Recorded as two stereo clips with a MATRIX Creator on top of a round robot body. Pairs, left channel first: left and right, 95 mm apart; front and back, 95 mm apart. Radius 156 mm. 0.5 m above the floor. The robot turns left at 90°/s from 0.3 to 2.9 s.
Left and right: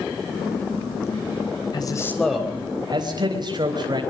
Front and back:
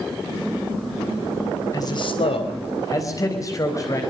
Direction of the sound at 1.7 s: 55° left.